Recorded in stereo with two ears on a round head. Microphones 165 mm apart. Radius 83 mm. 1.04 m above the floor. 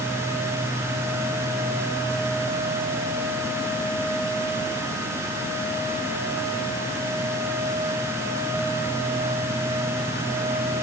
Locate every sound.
Only background noise.